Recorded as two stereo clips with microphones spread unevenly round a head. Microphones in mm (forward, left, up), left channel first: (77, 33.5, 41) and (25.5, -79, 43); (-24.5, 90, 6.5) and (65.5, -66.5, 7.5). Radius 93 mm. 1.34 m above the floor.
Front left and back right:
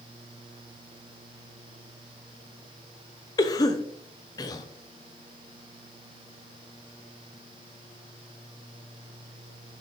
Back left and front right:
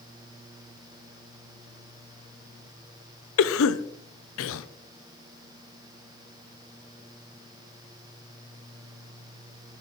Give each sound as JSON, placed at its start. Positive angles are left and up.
{"t": 3.4, "sound": "a cough", "azimuth_deg": 130, "distance_m": 0.5}